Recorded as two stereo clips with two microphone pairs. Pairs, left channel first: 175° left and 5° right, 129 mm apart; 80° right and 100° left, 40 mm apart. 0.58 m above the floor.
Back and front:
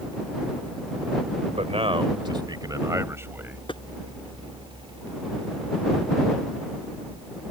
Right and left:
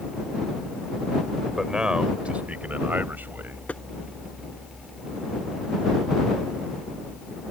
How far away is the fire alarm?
No fire alarm in this recording.